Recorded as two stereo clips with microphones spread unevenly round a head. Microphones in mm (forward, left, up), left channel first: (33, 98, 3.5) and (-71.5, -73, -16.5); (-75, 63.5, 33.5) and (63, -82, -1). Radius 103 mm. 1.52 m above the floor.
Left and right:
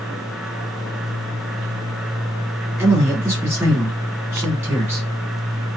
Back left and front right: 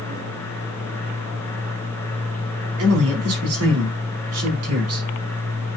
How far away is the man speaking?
About 5 m.